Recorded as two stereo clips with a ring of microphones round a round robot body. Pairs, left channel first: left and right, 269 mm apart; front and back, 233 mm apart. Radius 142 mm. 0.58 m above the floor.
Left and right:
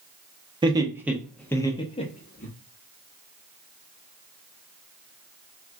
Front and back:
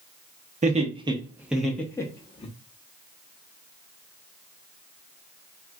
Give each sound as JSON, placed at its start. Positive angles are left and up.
{"t": 0.6, "sound": "laughter", "azimuth_deg": -150, "distance_m": 0.8}